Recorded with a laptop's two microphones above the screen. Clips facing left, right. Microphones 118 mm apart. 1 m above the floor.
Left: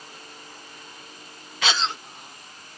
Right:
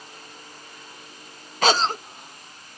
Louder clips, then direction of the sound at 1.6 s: Right 7 dB; 45° right (ahead or behind).